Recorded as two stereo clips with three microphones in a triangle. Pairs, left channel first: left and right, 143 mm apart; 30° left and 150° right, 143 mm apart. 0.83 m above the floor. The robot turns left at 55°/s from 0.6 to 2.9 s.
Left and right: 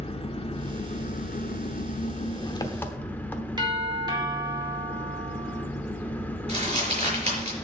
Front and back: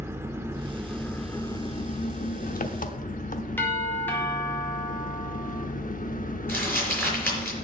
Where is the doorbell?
40° right, 2 m.